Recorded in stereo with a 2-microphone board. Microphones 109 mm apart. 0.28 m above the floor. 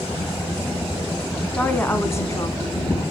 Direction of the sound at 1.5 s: 10° left (ahead or behind).